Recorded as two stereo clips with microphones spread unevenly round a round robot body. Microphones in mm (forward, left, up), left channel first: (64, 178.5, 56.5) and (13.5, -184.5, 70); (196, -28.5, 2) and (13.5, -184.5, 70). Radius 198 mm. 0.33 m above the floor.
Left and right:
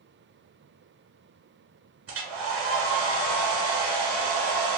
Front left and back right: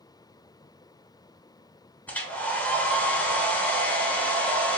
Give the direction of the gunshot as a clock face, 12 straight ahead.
No gunshot in this recording.